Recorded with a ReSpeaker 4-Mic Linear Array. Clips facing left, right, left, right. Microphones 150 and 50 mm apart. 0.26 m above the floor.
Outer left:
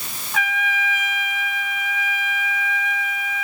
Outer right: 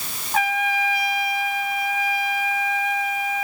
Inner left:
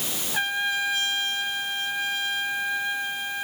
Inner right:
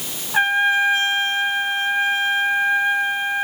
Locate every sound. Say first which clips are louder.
0.3 s a trumpet: outer right 3 dB, inner right 9 dB; 40° right (ahead or behind)